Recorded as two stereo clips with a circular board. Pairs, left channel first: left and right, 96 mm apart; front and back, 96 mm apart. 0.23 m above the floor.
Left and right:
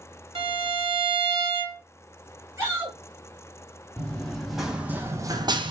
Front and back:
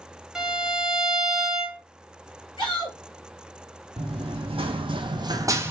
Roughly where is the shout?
Ahead right.